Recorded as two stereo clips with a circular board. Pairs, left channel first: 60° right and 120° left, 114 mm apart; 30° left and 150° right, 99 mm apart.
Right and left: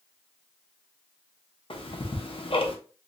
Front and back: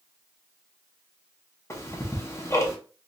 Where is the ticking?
30° right, 0.7 m.